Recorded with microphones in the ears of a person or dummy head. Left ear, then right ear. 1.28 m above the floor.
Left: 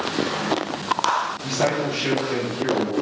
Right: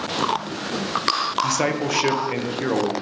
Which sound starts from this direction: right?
A man speaking, at 1.4 s.